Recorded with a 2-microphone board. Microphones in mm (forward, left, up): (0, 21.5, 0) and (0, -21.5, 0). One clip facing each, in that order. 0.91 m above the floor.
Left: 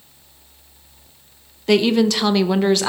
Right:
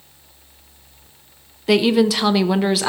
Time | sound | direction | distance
1.7 | a woman speaking | centre (ahead or behind) | 0.5 m